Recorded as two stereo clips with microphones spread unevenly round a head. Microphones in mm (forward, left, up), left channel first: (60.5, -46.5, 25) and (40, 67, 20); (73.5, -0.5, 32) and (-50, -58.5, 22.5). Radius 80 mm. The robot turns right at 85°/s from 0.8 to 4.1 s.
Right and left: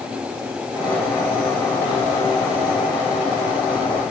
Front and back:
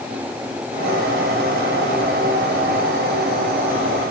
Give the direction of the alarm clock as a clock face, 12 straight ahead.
No alarm clock in this recording.